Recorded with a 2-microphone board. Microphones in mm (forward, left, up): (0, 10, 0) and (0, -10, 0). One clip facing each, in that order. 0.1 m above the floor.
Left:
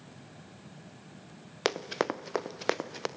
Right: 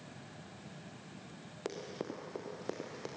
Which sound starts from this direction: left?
Running footsteps, at 1.6 s.